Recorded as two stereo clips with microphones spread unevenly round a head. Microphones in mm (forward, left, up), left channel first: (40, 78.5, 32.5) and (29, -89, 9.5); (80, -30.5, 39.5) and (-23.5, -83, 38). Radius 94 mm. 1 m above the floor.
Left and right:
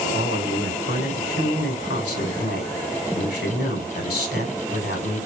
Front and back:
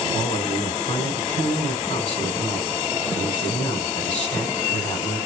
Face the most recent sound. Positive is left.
turn(degrees=60)